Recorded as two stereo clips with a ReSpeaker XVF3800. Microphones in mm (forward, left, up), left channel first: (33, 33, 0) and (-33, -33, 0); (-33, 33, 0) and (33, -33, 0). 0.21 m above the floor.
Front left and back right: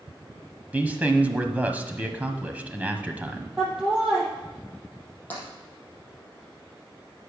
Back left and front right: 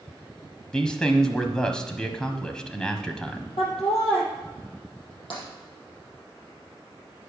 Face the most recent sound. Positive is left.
turn(degrees=115)